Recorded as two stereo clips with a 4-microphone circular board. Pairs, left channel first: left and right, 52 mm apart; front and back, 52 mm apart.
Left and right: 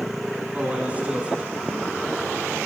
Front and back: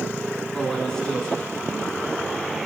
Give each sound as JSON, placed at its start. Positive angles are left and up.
{"t": 0.5, "sound": "a man speaking", "azimuth_deg": -60, "distance_m": 1.5}